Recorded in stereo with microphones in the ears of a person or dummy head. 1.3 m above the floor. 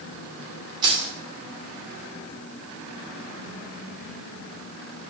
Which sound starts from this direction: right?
Keys jangling, at 0.8 s.